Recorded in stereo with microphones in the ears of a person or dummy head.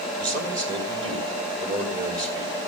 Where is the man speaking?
20° right (ahead or behind), 5 m.